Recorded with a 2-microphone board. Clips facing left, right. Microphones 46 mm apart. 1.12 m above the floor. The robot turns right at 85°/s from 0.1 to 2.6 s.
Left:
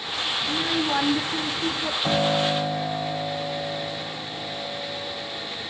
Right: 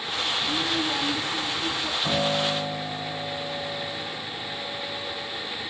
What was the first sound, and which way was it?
A child speaking, straight ahead.